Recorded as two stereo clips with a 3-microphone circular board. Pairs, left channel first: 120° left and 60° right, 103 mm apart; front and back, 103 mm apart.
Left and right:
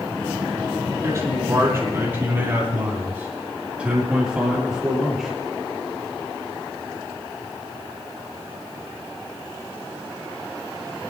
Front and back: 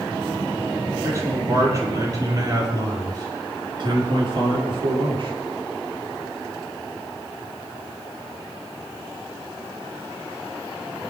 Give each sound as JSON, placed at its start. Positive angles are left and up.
{"t": 1.0, "sound": "a man speaking", "azimuth_deg": -120, "distance_m": 6.5}